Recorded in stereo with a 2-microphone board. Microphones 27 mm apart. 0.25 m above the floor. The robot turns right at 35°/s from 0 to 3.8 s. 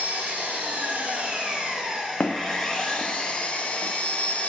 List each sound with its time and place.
0.0 s an engine running: 85° right, 4 m; by 4.5 s 50° left, 4 m
2.2 s footsteps: 55° left (ahead or behind), 0.9 m; by 3.9 s 70° left (ahead or behind), 2.5 m